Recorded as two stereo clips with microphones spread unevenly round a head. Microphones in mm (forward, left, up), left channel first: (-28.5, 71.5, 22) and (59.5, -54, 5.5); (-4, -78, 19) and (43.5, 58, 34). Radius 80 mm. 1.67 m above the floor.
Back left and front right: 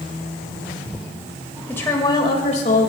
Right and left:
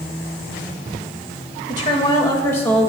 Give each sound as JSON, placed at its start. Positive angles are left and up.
{"t": 1.7, "sound": "a woman speaking", "azimuth_deg": -155, "distance_m": 2.5}